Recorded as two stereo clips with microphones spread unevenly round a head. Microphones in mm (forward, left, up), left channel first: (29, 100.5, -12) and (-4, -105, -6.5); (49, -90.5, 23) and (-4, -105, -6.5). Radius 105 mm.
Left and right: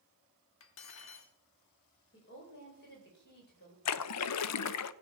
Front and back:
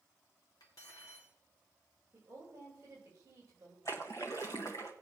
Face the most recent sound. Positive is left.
turn(degrees=95)